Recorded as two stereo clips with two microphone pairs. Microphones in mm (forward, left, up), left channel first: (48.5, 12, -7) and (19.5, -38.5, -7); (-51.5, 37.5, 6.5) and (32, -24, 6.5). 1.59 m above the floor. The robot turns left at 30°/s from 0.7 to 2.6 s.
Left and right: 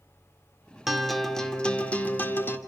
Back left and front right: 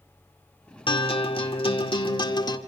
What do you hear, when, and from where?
0.9 s a guitar: 155° left, 2.0 m; by 2.6 s 105° left, 2.0 m